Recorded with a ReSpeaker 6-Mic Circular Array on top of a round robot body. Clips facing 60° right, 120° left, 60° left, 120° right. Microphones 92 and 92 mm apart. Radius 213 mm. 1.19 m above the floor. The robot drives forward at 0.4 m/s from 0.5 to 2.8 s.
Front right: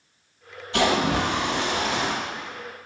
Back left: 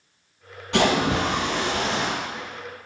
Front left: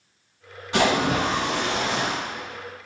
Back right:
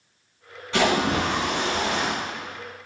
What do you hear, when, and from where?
0.7 s a splash: 140° left, 1.2 m; by 2.1 s 150° left, 1.7 m